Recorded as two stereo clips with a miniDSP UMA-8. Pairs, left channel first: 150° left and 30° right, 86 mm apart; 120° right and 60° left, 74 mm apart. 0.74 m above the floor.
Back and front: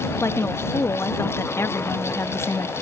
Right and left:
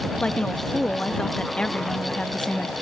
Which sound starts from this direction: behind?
A woman speaking, at 0.2 s.